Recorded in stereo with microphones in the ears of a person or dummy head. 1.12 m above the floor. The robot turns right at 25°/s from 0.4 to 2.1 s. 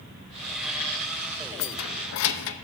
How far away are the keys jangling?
About 0.7 m.